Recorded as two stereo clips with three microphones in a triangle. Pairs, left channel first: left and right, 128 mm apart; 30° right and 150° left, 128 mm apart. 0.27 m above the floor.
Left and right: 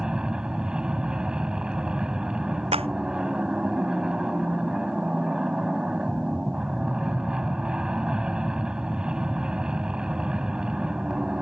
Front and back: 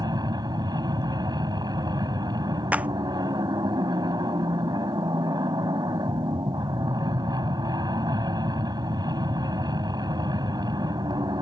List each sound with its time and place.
0.0 s an aircraft: 170° right
2.7 s a clap: 130° right